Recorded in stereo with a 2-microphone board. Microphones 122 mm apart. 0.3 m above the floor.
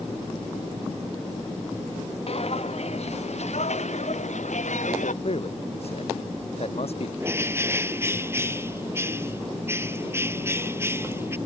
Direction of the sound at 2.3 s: 55° left (ahead or behind).